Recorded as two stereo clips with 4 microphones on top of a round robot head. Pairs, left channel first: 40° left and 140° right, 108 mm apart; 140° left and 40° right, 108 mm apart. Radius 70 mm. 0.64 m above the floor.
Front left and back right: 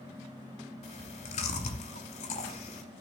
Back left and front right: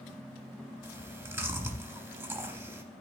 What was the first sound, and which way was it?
Chewing, 25° left.